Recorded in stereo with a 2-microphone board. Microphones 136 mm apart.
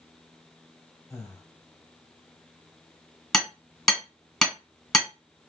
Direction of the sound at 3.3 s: 5° left (ahead or behind).